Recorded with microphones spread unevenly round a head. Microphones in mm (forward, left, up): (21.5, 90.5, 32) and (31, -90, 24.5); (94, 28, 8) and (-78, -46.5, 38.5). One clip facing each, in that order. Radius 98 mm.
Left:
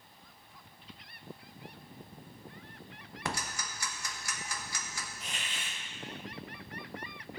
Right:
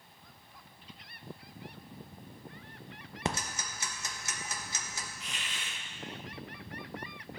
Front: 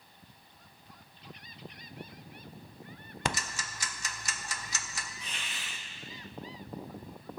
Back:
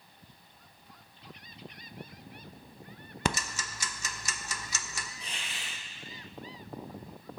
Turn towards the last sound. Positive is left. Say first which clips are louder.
# left 1 dB, back 1 dB
turn(degrees=145)